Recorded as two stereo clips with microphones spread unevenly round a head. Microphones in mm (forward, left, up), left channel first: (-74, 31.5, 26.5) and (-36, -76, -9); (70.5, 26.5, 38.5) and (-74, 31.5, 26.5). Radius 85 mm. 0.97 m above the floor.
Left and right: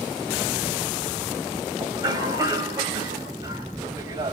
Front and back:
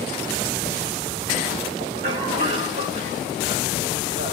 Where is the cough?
130° right, 4.5 m.